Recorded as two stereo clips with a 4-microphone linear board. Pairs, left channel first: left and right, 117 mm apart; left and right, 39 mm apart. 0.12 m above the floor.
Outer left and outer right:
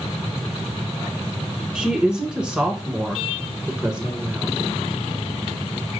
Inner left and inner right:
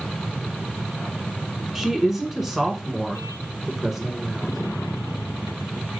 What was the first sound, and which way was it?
A woman speaking, 5° right (ahead or behind).